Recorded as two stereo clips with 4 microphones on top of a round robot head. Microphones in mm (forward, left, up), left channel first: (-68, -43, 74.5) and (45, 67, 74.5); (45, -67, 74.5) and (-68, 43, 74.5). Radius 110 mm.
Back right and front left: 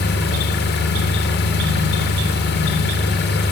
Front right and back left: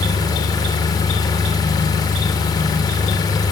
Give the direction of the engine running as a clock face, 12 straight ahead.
4 o'clock.